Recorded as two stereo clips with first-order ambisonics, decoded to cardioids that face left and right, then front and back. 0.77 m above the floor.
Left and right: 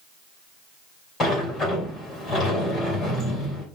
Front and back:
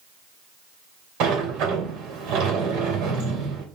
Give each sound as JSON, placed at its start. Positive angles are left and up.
{"t": 1.2, "sound": "a sliding door", "azimuth_deg": 150, "distance_m": 3.0}